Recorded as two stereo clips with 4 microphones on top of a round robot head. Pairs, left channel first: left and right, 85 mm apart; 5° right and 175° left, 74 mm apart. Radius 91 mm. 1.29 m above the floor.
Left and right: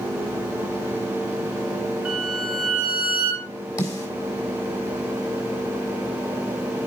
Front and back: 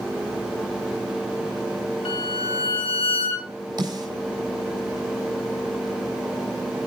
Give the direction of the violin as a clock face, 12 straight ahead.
12 o'clock.